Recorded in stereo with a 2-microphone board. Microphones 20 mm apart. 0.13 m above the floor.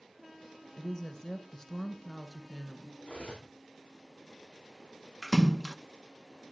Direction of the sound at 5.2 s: 10° left (ahead or behind).